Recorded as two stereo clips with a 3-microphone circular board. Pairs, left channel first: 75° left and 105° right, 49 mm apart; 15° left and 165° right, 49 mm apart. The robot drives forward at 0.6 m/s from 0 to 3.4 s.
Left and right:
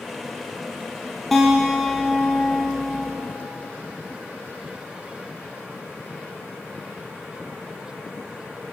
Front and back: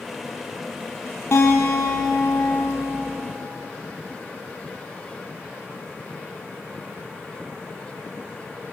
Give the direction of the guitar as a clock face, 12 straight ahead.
12 o'clock.